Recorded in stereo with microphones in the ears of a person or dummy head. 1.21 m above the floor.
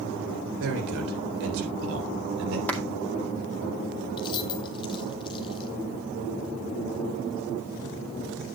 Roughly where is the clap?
Centre.